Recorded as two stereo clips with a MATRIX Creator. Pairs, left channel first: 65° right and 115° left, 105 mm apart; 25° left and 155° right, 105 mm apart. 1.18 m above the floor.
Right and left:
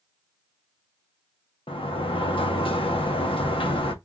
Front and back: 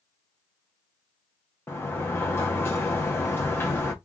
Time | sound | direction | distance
1.7 | a sliding door | 45° right | 0.8 m